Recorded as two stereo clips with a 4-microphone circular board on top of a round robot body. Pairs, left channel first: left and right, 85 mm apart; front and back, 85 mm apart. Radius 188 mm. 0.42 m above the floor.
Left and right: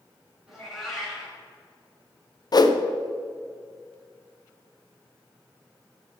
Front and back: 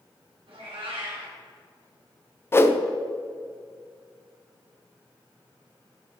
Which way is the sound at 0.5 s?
Straight behind.